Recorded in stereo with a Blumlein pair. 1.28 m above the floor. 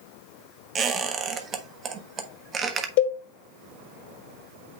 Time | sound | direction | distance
0.8 | a squeak | 25° right | 1.1 m
3.0 | a cowbell | 50° left | 1.9 m